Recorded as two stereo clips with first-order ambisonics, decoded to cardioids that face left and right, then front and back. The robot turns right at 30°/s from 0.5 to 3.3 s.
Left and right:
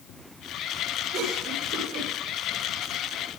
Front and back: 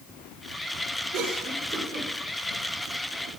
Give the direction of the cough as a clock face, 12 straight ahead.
5 o'clock.